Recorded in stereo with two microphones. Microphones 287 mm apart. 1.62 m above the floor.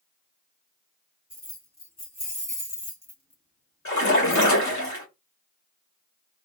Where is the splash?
85° left, 3 m.